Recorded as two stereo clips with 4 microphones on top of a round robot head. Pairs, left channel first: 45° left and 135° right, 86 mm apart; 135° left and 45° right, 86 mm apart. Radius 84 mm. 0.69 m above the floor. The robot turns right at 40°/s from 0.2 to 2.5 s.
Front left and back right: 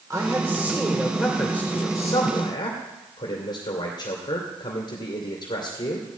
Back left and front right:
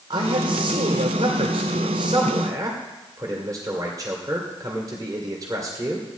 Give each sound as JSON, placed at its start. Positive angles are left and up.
{"t": 0.1, "sound": "a man speaking", "azimuth_deg": -85, "distance_m": 2.5}